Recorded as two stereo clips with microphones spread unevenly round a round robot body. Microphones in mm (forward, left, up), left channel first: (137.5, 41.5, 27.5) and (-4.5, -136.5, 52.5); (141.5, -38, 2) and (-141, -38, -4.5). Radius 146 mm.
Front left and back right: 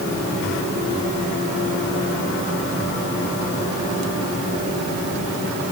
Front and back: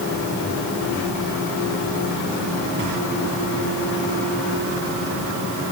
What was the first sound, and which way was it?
Only background noise.